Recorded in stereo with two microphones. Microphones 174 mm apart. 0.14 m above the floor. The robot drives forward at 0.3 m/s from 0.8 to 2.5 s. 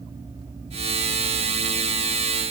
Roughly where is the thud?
No thud in this recording.